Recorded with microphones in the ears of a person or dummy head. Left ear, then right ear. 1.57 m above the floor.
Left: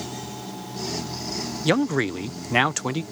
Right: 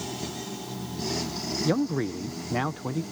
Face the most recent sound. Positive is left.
turn(degrees=70)  # may be behind; listen again after turning